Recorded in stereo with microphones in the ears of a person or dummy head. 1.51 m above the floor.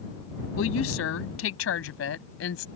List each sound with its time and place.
0.6 s a woman speaking: 85° left; by 2.7 s 80° left